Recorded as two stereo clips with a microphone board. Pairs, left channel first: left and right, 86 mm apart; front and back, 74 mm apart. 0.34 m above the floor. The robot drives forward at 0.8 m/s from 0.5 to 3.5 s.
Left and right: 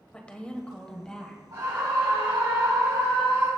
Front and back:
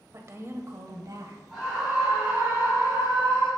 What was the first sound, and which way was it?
A woman speaking, 160° left.